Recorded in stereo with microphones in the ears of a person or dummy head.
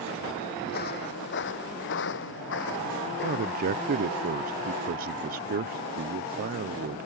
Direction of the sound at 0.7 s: 50° left (ahead or behind).